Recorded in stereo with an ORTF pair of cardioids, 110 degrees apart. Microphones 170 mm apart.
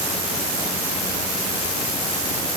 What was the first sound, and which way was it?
Only background noise.